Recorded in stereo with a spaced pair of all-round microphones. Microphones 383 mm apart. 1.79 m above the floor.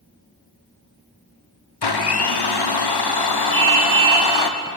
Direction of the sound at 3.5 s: 10° left (ahead or behind).